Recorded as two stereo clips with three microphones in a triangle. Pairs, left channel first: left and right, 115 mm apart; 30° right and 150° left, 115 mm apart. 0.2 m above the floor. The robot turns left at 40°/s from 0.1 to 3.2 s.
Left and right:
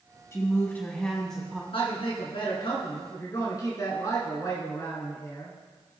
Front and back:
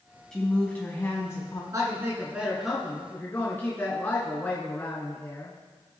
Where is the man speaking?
100° left, 2 m; by 5.5 s 40° left, 2 m.